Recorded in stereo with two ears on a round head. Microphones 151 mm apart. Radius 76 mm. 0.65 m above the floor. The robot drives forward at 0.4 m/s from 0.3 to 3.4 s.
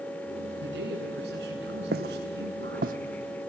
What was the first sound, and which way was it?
A man speaking, 70° right (ahead or behind).